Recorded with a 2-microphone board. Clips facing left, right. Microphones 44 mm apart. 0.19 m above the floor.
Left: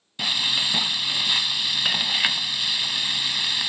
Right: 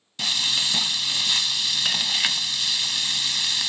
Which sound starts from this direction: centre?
Frying, at 0.2 s.